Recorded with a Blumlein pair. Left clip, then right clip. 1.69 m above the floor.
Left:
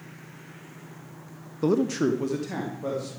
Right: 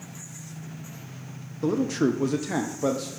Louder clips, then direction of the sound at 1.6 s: Left 1 dB; 15° left.